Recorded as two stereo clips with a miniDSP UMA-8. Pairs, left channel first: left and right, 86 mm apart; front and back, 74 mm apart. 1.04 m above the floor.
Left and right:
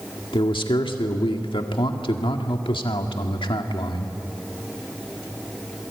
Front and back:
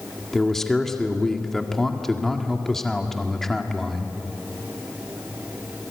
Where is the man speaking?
85° left, 1.9 m.